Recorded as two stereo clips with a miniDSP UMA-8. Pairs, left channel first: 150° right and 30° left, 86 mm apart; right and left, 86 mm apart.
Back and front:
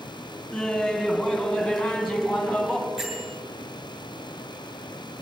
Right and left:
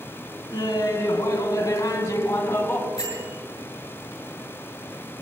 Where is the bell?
50° right, 7.5 m.